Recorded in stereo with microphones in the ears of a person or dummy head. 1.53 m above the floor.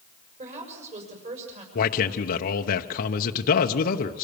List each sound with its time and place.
0.4 s a woman speaking: 40° right (ahead or behind), 6.5 m
1.8 s a man speaking: 45° left (ahead or behind), 1.0 m